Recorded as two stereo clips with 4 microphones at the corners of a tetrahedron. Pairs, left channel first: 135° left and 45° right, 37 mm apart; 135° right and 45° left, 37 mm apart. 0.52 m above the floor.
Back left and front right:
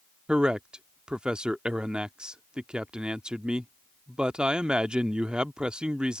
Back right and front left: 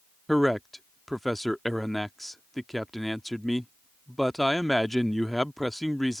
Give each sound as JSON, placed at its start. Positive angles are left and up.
{"t": 0.3, "sound": "a man speaking", "azimuth_deg": -55}